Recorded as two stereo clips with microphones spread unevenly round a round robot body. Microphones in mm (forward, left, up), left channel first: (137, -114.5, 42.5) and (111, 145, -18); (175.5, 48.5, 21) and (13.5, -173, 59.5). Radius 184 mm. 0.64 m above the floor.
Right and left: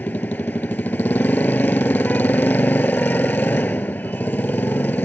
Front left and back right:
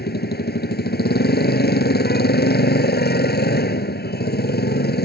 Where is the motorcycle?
Straight ahead.